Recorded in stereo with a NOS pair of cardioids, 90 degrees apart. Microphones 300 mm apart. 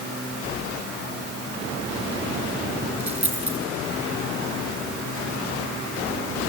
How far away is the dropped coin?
About 6 m.